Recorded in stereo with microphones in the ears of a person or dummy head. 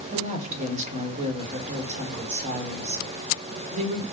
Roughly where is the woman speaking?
Right.